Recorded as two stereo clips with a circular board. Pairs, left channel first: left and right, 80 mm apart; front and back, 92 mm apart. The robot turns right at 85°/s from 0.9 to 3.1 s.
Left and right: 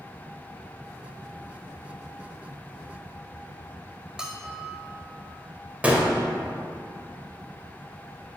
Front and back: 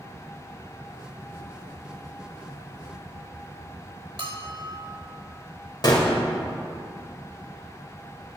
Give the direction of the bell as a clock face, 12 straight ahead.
6 o'clock.